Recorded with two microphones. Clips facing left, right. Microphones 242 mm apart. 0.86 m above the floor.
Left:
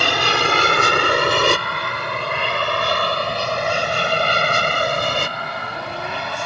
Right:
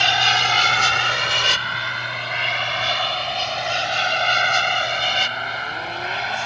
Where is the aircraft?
60° left (ahead or behind); by 6.5 s 55° left (ahead or behind).